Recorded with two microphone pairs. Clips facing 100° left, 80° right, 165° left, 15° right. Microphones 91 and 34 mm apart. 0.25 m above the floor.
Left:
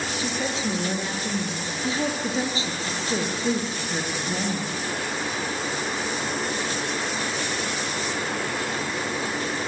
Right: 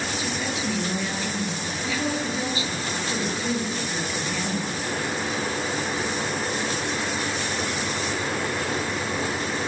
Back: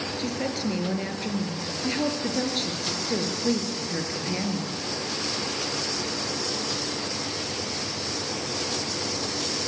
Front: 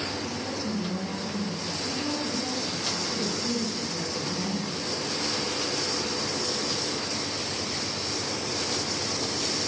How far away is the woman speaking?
About 5 m.